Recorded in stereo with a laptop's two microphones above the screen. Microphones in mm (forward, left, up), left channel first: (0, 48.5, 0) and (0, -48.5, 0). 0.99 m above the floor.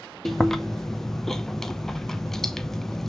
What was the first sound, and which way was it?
Chewing, 5° left (ahead or behind).